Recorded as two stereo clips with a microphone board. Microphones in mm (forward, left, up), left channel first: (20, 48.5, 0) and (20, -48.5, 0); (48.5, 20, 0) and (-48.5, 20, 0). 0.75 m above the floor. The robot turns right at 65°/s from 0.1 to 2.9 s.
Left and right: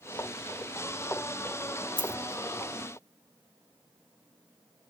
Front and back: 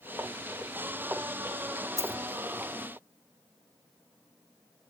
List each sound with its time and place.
2.0 s a dropped coin: 120° right, 0.7 m; by 2.2 s 110° right, 0.7 m